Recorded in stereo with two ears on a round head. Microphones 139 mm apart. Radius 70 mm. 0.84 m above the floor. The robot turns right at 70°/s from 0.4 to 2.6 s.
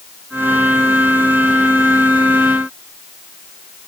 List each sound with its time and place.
Only background noise.